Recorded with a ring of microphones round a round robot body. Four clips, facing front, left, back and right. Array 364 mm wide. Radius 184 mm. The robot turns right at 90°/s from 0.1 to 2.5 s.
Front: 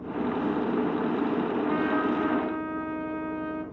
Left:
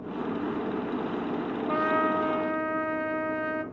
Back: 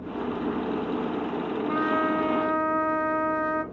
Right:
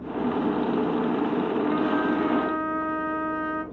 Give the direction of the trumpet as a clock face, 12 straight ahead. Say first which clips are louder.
Right 2 dB, back 4 dB; 9 o'clock.